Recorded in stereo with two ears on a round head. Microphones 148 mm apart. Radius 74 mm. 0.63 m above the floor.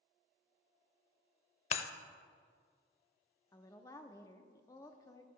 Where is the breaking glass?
40° left (ahead or behind), 0.5 m.